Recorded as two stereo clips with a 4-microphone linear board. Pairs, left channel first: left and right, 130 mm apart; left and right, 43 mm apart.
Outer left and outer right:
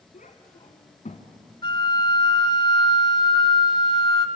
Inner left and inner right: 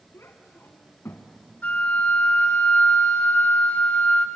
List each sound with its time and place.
0.1 s a child speaking: 80° left, 1.8 m; by 1.3 s 60° left (ahead or behind), 1.7 m
1.6 s a flute: 40° left (ahead or behind), 1.4 m